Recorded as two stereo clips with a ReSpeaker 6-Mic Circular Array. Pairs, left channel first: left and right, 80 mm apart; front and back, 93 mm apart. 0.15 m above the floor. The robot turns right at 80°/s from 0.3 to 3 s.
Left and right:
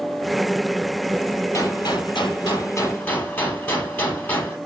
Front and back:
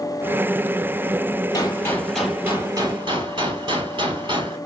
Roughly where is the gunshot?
Ahead left.